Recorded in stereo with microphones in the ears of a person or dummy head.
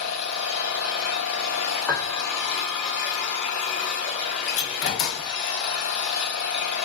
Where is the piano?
15° left (ahead or behind), 0.6 m.